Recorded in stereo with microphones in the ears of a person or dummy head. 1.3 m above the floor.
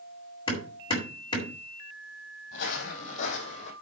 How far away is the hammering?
About 5 m.